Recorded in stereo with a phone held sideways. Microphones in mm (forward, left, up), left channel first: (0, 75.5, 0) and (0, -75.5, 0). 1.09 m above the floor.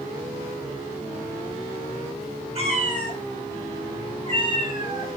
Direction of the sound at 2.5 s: 40° right (ahead or behind).